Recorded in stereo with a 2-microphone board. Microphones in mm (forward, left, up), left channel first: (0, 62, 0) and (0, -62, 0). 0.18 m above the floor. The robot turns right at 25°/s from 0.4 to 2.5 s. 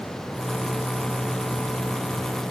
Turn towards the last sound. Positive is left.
No sound to turn to.